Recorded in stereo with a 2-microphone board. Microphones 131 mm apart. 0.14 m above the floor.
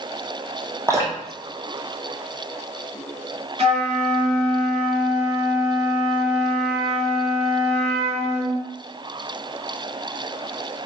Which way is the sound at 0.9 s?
25° right (ahead or behind).